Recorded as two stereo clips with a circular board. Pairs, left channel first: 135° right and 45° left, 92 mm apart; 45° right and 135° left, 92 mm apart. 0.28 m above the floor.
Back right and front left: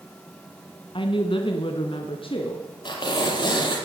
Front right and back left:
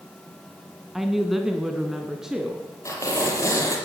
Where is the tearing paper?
100° right, 6 m.